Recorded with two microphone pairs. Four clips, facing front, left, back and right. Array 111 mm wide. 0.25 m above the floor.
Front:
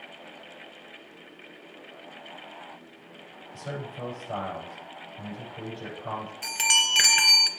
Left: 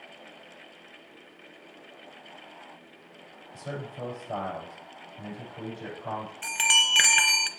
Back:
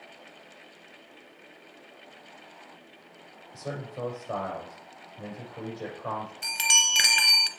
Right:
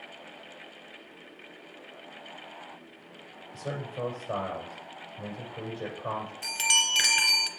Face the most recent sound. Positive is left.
turn(degrees=80)